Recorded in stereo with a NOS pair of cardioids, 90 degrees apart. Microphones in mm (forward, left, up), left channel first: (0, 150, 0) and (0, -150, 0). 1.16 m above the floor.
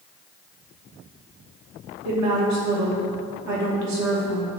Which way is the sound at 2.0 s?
70° right.